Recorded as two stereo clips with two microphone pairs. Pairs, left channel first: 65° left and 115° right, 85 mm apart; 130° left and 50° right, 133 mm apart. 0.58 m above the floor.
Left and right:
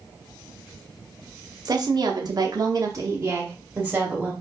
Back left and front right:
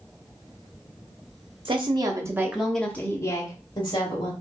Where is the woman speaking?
90° right, 1.0 m; by 4.3 s 160° left, 1.3 m.